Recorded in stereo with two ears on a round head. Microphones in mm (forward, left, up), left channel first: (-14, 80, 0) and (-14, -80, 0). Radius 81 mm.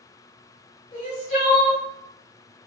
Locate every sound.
0.9 s crying: 40° left (ahead or behind), 1.3 m